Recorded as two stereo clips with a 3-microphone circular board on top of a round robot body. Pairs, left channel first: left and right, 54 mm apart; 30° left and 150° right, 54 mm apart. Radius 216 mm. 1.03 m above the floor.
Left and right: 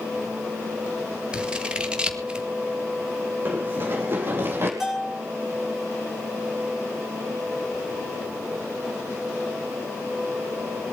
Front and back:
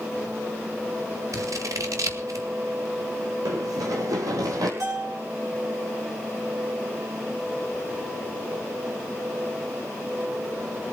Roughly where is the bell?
Behind.